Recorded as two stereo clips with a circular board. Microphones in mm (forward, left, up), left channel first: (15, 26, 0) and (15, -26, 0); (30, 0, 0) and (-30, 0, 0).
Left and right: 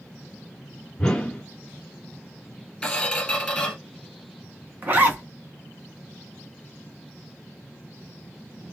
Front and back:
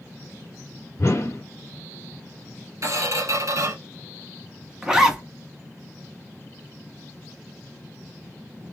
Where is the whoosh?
20° left, 0.8 m.